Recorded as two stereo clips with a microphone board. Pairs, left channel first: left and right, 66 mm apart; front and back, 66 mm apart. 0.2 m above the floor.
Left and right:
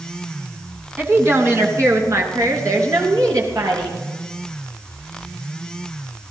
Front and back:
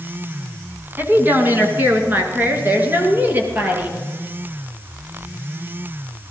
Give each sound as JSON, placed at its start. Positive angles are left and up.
{"t": 1.0, "sound": "a woman speaking", "azimuth_deg": -135, "distance_m": 1.9}